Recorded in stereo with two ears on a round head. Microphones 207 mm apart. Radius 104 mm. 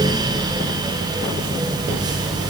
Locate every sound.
Only background noise.